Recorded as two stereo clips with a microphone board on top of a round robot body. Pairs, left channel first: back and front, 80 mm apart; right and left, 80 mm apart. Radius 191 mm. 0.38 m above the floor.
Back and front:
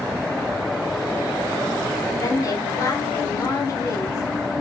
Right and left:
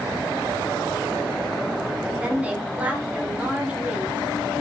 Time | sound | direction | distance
2.2 | a woman speaking | 160° left | 1.3 m